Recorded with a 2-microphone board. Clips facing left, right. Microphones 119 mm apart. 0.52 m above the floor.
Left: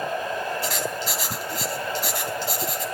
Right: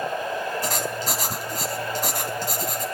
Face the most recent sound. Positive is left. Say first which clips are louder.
# right 1 dB
turn(degrees=-45)  # may be behind; listen again after turning